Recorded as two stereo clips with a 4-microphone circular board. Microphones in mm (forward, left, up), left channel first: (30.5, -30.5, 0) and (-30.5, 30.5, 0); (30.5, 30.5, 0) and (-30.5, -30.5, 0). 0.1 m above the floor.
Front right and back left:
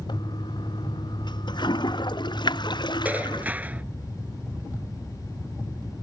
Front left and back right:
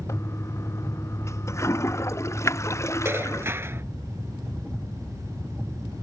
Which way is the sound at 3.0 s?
170° right.